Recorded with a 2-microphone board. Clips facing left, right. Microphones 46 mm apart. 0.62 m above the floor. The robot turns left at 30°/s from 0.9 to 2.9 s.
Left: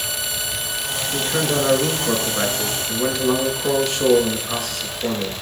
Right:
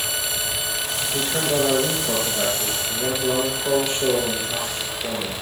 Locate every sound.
1.1 s a man speaking: 150° left, 6.5 m; by 5.3 s 100° left, 6.5 m